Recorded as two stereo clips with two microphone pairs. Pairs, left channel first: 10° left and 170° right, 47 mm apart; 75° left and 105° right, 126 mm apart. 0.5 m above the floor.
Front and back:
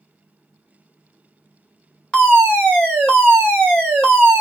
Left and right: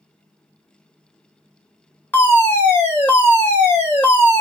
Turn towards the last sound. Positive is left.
turn(degrees=35)